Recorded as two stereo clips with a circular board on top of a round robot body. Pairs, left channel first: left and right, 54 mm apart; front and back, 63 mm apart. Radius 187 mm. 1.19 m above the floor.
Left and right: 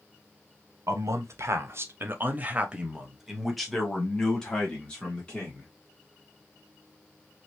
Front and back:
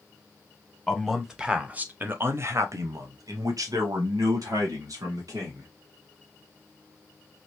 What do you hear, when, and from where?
0.9 s a man speaking: 90° right, 1.2 m; by 5.7 s 160° left, 2 m